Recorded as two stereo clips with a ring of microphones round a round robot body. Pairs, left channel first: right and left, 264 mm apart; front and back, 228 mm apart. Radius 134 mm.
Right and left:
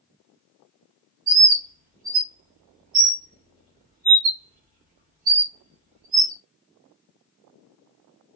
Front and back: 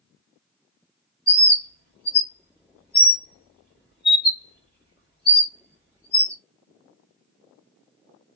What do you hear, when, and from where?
1.3 s a bird: 35° left, 1.3 m